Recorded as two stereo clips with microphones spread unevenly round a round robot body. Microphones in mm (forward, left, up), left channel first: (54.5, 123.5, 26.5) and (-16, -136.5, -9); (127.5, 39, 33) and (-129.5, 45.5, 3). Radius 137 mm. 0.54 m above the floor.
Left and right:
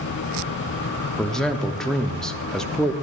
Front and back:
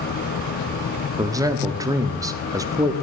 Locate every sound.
1.2 s a man speaking: straight behind, 0.7 m